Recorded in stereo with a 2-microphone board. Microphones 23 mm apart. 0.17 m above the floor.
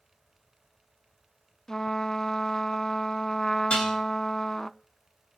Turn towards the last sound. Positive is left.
turn(degrees=60)  # may be behind; listen again after turning